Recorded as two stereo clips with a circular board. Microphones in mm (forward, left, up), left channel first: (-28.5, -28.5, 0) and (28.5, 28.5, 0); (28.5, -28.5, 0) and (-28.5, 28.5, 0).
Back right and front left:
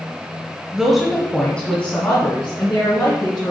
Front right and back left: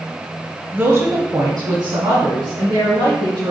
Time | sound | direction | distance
0.7 | a woman speaking | 115° left | 1.0 m